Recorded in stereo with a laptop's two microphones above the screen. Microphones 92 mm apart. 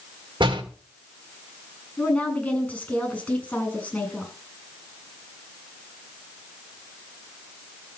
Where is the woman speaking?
10° left (ahead or behind), 8 m.